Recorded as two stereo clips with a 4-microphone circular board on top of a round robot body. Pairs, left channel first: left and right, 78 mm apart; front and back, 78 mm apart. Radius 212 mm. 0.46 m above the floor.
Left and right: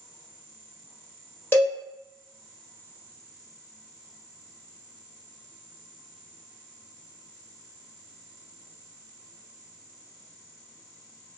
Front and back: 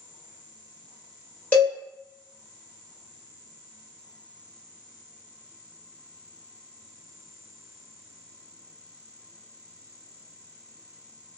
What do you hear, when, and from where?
1.5 s a cowbell: 55° left, 1.4 m